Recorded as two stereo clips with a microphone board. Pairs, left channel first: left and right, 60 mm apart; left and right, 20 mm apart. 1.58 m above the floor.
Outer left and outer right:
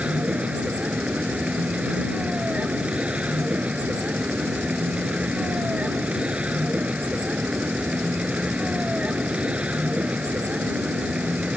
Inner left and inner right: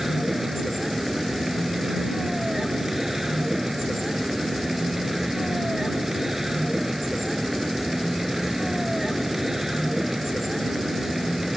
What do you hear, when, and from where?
0.0 s a vehicle: 20° right (ahead or behind)